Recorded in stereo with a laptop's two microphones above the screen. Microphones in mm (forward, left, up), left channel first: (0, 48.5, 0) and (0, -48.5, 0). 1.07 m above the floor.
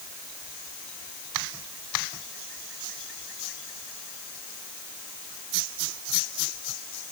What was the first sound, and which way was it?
Only background noise.